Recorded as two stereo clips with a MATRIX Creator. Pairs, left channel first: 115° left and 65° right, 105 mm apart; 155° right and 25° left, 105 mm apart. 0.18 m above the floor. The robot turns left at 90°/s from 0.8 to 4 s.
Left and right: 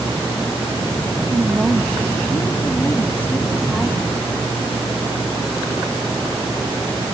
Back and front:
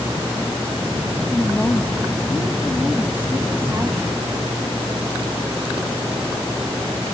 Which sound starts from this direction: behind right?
A woman speaking, at 1.3 s.